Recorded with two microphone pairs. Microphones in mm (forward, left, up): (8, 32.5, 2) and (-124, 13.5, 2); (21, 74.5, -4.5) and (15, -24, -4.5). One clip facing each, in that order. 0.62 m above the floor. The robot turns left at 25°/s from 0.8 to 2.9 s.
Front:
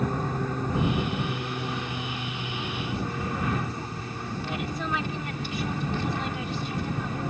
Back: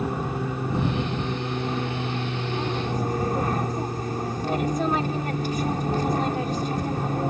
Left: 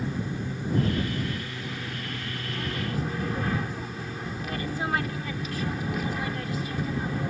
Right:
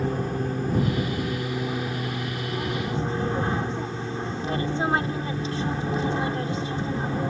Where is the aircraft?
95° right; by 7.3 s 145° right.